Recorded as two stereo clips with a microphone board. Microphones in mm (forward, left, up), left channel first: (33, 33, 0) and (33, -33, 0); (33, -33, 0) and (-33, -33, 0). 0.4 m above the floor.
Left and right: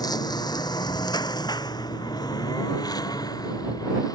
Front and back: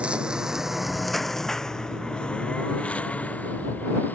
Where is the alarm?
I don't hear an alarm.